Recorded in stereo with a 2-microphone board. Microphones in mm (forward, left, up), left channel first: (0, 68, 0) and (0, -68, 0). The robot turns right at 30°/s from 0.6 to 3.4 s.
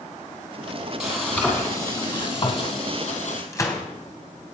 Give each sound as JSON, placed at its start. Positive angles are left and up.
{"t": 1.0, "sound": "frying", "azimuth_deg": -5, "distance_m": 3.0}
{"t": 3.5, "sound": "a gunshot", "side_deg": 25, "distance_m": 3.5}